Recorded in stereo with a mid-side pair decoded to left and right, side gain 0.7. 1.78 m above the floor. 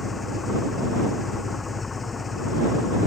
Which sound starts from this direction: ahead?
An engine running, at 0.0 s.